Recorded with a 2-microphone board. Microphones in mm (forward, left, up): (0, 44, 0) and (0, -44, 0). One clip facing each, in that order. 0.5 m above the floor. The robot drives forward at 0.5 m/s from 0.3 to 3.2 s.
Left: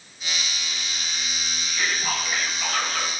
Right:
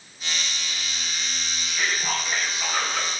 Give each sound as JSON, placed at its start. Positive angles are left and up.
{"t": 1.6, "sound": "whispering", "side_deg": -10, "distance_m": 3.0}